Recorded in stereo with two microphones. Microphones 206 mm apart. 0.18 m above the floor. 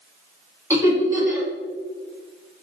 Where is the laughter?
15° right (ahead or behind), 1.1 m.